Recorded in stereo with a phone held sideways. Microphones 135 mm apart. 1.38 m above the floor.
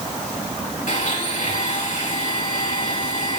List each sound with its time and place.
0.9 s a blender: 75° left (ahead or behind), 5.5 m